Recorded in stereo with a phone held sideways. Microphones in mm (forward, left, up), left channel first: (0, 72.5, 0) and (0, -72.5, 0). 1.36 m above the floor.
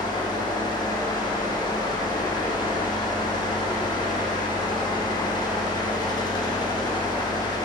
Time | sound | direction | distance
0.0 | a fan | 30° left (ahead or behind) | 1.0 m